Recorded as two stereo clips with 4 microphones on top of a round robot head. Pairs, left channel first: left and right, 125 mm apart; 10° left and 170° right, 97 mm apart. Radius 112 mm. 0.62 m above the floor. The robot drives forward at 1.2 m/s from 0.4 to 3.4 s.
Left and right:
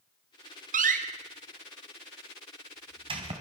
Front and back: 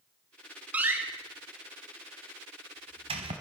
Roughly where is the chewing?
No chewing in this recording.